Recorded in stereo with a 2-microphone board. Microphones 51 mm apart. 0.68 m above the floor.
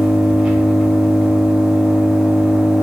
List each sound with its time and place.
0.0 s an engine running: 20° right (ahead or behind), 0.7 m